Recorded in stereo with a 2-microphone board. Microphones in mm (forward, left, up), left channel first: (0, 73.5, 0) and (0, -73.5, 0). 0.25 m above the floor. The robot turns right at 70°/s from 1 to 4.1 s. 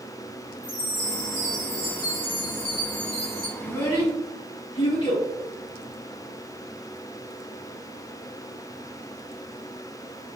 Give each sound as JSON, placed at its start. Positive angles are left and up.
{"t": 0.6, "sound": "a chime", "azimuth_deg": 85, "distance_m": 1.9}
{"t": 3.6, "sound": "a child speaking", "side_deg": 5, "distance_m": 1.8}